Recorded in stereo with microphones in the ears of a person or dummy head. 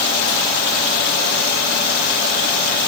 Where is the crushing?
I don't hear crushing.